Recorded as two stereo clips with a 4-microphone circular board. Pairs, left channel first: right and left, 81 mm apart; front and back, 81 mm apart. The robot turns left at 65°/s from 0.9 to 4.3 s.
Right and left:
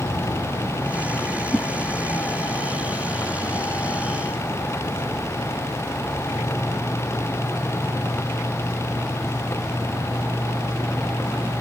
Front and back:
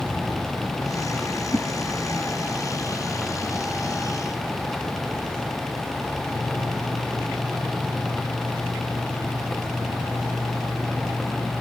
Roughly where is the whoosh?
Ahead.